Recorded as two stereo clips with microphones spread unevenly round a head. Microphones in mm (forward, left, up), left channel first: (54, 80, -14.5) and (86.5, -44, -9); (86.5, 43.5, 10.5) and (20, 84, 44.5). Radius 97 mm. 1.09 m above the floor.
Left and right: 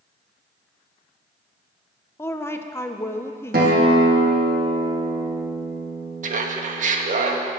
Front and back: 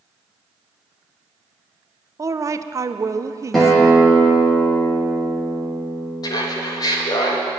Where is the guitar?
110° right, 1.8 m.